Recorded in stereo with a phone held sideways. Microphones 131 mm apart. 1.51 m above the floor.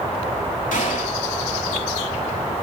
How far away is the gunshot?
About 3.5 m.